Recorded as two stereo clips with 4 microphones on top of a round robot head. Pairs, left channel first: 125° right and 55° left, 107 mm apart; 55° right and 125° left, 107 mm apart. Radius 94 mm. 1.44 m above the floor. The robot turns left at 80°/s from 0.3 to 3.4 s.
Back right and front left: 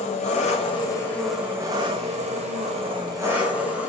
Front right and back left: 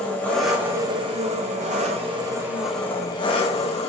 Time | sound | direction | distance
0.0 | an engine running | 135° right | 2 m